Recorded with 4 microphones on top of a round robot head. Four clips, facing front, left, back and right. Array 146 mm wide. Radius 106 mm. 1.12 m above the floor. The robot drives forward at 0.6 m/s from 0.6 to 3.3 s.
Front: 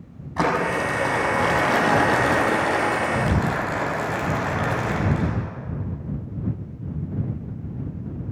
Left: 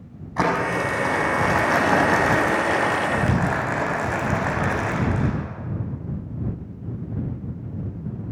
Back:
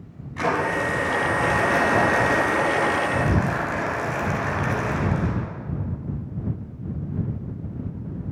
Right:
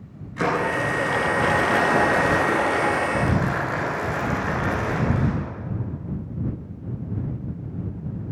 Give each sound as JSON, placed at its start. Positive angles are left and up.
{"t": 0.4, "sound": "crumpling", "azimuth_deg": 50, "distance_m": 6.0}